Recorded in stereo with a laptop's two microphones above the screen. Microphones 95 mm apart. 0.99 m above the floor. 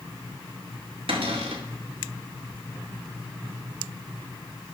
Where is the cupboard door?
75° right (ahead or behind), 2 m.